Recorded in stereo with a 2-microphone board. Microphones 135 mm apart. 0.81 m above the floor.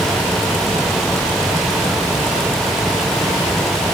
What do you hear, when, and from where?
Only background noise.